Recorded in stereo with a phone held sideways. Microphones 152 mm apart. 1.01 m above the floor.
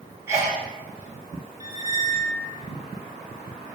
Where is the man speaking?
I don't hear a man speaking.